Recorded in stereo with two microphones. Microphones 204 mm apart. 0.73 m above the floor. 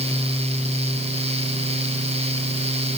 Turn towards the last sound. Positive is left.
No sound to turn to.